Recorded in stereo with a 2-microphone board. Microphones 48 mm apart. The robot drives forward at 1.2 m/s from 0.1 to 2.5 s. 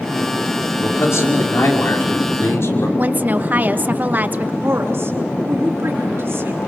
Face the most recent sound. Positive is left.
turn(degrees=-60)  # may be behind; listen again after turning